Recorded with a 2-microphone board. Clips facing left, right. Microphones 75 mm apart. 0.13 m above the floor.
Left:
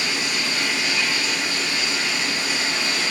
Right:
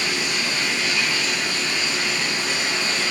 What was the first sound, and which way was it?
Running water, 15° left (ahead or behind).